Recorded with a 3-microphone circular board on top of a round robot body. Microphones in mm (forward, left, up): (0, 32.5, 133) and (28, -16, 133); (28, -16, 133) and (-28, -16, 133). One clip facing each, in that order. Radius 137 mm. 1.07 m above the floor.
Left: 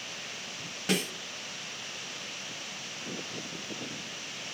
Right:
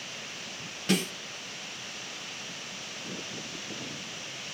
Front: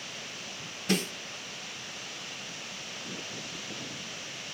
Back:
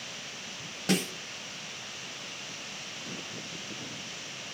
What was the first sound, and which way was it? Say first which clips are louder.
A snare drum: right 2 dB, back 1 dB; 160° right.